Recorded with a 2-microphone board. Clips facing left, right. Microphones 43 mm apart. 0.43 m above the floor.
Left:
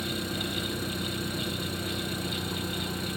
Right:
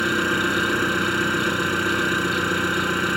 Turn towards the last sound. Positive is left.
turn(degrees=-65)  # may be behind; listen again after turning